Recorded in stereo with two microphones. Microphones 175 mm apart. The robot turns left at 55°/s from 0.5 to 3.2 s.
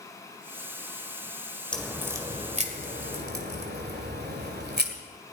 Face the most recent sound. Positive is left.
turn(degrees=-70)  # may be behind; listen again after turning